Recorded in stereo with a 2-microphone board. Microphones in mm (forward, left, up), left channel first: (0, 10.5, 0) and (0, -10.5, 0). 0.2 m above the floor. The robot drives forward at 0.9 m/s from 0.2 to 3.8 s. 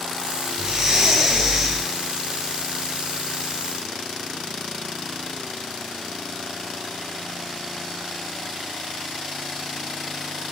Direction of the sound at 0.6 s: 35° right (ahead or behind).